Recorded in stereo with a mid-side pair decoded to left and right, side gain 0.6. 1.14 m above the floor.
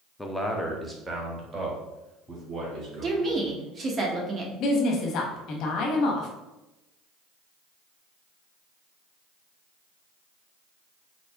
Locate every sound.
0.2 s a man speaking: 15° left, 0.8 m; by 3.4 s 35° right, 3 m
3.0 s a woman speaking: 30° right, 1.3 m
4.6 s a woman speaking: 60° left, 1.2 m